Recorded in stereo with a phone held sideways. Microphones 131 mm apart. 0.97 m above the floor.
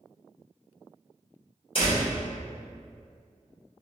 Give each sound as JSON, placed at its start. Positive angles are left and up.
{"t": 1.8, "sound": "a door slam", "side_deg": 40, "distance_m": 1.6}